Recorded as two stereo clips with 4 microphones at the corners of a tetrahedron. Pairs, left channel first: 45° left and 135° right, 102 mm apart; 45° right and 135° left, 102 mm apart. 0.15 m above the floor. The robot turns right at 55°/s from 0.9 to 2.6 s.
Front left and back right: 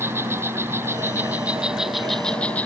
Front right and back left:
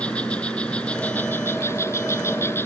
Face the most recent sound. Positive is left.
turn(degrees=-15)